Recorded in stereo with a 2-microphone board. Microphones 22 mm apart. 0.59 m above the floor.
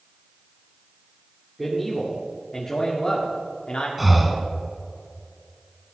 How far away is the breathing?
About 1.3 m.